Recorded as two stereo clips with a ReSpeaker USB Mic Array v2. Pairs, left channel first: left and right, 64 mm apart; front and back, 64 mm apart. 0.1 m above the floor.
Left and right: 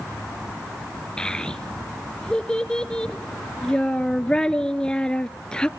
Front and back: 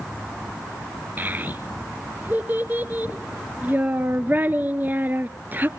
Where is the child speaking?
155° left, 0.9 m.